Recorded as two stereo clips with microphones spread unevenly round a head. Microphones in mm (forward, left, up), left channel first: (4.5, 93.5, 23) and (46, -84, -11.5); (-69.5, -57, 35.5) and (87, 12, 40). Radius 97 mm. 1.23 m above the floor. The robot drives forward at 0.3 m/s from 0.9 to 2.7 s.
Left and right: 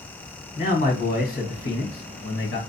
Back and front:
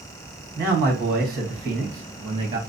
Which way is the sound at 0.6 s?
60° left.